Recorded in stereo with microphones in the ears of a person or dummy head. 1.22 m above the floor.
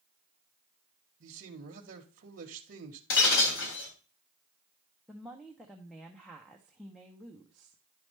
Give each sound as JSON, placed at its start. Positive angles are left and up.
{"t": 1.2, "sound": "a man speaking", "side_deg": -55, "distance_m": 1.1}
{"t": 3.1, "sound": "breaking glass", "side_deg": 65, "distance_m": 2.5}
{"t": 5.1, "sound": "a woman speaking", "side_deg": 0, "distance_m": 0.8}